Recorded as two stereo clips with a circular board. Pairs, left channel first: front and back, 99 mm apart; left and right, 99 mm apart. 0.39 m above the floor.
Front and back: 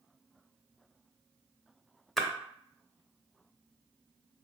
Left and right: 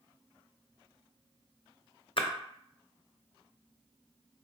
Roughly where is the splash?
Left.